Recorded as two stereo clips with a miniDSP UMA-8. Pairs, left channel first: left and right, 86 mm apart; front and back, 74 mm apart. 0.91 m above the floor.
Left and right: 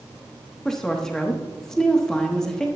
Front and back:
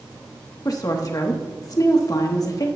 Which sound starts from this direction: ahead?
A woman speaking, at 0.7 s.